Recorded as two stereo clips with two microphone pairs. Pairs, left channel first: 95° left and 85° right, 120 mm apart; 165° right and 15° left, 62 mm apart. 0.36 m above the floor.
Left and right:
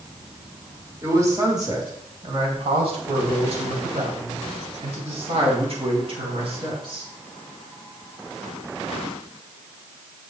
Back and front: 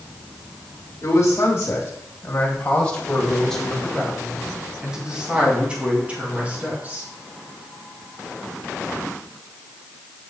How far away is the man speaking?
About 1.9 m.